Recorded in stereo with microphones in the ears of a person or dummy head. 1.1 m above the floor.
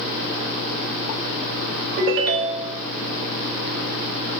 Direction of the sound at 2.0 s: 50° right (ahead or behind).